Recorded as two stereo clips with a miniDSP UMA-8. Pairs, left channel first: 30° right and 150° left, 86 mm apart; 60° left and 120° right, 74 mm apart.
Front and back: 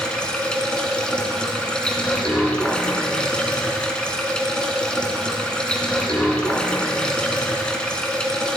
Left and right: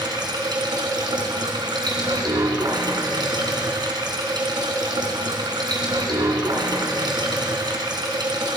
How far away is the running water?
About 1.9 m.